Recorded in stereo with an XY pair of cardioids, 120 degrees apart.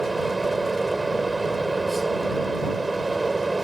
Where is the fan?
10° right.